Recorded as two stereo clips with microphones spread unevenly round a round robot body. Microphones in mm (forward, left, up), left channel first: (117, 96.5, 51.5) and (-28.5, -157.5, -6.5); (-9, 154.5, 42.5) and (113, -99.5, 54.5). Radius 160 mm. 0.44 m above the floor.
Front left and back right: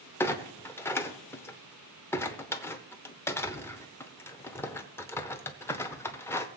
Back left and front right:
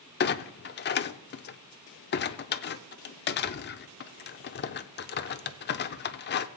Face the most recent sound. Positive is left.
turn(degrees=150)